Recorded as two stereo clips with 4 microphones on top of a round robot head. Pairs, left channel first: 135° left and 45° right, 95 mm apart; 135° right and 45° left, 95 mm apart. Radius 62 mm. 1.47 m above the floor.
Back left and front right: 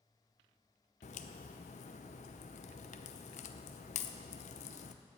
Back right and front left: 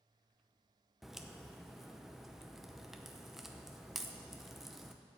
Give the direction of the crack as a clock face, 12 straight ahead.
8 o'clock.